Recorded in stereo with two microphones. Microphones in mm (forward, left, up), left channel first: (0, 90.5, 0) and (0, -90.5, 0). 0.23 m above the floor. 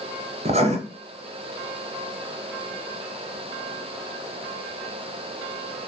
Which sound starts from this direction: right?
Writing, at 0.5 s.